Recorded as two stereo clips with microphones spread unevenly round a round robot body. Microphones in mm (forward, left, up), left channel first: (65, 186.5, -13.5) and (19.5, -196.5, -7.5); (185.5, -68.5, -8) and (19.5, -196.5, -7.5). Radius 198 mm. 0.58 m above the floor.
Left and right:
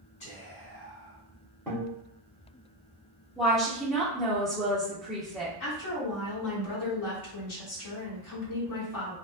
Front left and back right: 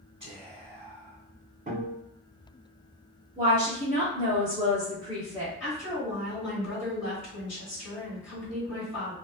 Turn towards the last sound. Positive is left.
turn(degrees=55)